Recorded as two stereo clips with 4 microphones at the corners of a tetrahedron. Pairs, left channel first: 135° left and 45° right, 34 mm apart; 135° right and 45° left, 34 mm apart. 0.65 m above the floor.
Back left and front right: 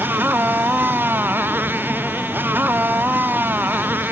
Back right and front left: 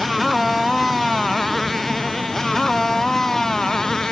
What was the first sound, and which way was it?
A motorcycle, 45° right.